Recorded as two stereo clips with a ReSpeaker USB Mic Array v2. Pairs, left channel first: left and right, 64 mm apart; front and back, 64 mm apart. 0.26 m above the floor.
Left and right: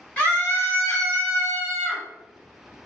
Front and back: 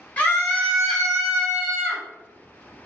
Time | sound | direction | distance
0.2 | a scream | 45° left | 1.1 m